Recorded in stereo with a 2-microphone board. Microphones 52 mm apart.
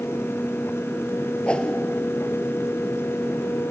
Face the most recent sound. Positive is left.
turn(degrees=20)  # may be behind; listen again after turning